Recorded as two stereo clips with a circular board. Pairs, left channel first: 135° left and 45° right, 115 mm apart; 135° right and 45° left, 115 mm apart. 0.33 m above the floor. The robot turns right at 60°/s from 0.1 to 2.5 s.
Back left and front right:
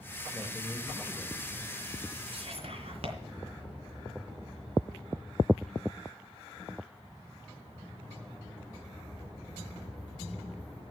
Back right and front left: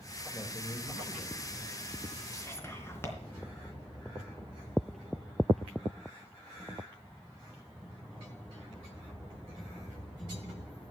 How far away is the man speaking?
About 1.6 m.